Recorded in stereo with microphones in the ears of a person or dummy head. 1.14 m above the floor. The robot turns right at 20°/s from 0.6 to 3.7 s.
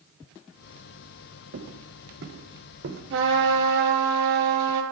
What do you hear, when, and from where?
1.5 s footsteps: 75° right (ahead or behind), 4.5 m
3.1 s a trumpet: 70° right (ahead or behind), 4 m; by 4.8 s 55° right (ahead or behind), 4 m